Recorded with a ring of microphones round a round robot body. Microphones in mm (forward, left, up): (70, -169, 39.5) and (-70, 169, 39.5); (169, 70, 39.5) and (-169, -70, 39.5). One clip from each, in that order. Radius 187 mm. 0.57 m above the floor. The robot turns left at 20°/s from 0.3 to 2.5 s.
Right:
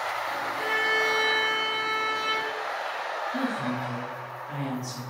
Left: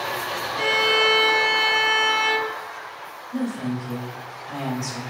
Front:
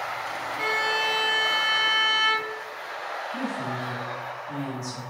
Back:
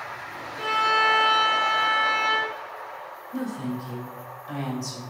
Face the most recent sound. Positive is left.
turn(degrees=135)